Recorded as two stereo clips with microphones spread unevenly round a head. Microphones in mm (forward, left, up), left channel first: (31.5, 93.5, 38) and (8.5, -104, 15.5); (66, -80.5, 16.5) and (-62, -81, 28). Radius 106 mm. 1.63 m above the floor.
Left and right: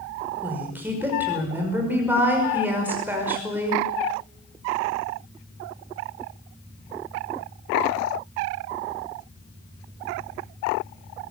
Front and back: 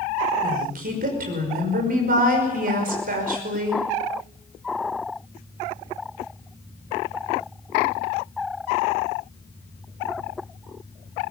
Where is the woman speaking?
Straight behind, 5.5 m.